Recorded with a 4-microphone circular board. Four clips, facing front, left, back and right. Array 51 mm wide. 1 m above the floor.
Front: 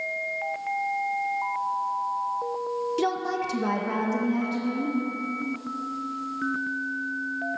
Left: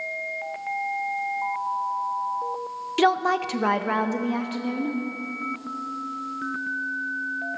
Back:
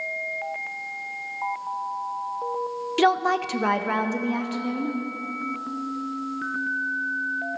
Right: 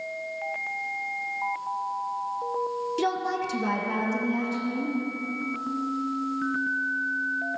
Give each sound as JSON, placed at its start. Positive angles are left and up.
{"t": 3.0, "sound": "a woman speaking", "azimuth_deg": 135, "distance_m": 0.7}